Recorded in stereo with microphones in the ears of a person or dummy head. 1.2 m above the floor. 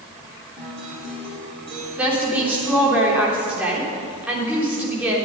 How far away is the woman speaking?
About 3.5 m.